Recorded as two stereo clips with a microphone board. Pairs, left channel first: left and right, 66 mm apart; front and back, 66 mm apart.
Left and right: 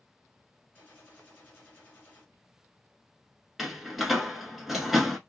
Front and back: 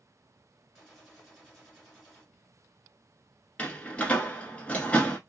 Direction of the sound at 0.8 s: 75° left.